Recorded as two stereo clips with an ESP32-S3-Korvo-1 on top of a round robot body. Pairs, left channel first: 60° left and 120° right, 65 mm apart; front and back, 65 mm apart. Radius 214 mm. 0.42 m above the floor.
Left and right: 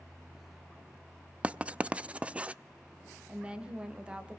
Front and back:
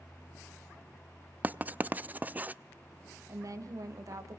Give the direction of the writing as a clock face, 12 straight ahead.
5 o'clock.